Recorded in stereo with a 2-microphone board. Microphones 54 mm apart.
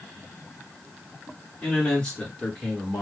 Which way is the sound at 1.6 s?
15° left (ahead or behind).